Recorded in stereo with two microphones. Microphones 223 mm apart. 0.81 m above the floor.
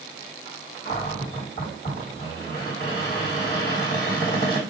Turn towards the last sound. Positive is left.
turn(degrees=45)  # may be behind; listen again after turning